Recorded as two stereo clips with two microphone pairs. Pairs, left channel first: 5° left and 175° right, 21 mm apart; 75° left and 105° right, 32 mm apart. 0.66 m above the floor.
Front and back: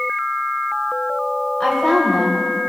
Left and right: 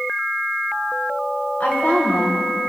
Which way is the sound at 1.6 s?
65° left.